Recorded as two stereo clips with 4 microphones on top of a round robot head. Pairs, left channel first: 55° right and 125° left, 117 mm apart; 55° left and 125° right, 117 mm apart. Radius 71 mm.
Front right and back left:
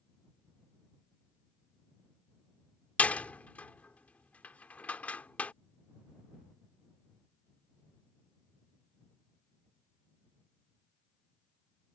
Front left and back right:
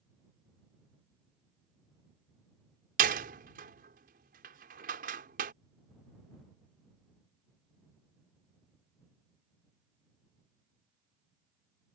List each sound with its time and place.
3.0 s a door slam: 135° right